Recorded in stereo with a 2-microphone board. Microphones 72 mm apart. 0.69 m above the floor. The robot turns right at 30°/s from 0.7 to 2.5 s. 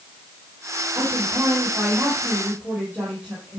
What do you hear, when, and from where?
0.9 s a woman speaking: 70° right, 5.5 m; by 3.6 s 20° right, 5.5 m